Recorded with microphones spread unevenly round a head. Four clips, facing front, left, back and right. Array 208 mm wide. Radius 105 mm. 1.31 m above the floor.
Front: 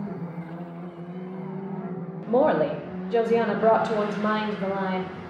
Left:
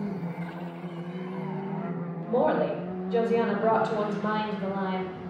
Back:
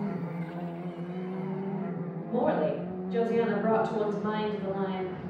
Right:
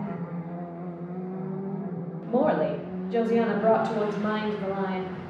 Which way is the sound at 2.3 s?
5° right.